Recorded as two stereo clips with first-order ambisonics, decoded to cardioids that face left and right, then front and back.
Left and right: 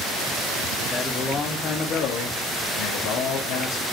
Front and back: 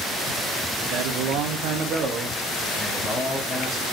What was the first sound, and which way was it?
A man speaking, 170° left.